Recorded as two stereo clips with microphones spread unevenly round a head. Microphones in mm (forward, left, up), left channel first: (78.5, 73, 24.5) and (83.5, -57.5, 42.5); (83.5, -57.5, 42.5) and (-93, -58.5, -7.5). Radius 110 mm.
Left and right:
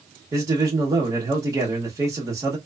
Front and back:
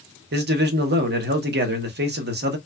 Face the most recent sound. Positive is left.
turn(degrees=-165)